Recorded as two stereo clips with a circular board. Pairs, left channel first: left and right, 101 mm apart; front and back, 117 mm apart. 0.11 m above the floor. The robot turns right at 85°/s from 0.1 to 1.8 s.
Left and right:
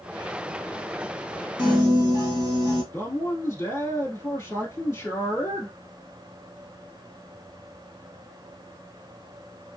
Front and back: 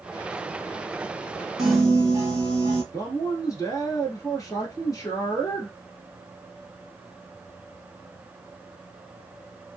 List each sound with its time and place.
1.6 s a piano: 140° right, 1.2 m; by 2.8 s 120° right, 1.2 m
2.9 s a man speaking: 40° left, 1.3 m